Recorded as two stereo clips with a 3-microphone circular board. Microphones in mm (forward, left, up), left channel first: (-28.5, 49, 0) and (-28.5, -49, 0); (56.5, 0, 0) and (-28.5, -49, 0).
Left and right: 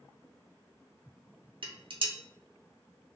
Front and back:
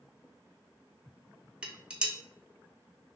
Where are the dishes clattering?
70° right, 0.5 m.